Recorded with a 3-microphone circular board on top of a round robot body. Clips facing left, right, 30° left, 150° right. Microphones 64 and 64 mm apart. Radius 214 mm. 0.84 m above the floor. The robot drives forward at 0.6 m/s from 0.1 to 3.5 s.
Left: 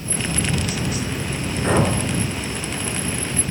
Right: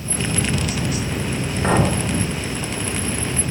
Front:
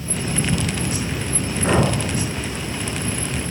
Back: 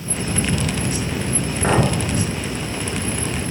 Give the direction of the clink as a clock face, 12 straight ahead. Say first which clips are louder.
Right 1 dB, back 1 dB; 5 o'clock.